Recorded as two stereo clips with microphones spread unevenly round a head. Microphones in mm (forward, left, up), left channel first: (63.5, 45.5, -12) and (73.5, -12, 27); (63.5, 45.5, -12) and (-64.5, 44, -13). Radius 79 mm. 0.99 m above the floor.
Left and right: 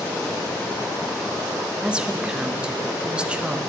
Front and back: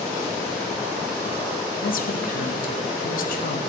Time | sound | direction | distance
1.8 | a woman speaking | 5° left | 0.7 m